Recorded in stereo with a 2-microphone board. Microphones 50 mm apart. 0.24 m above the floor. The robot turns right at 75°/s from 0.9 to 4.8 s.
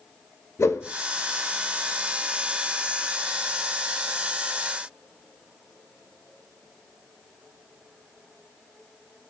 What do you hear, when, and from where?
0.6 s a whoosh: 90° left, 0.6 m